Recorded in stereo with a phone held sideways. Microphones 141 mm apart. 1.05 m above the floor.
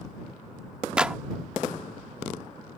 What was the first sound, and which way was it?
A clap, 5° right (ahead or behind).